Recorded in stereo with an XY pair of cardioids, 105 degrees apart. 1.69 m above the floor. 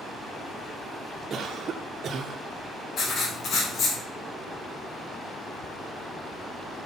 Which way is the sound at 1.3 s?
50° right.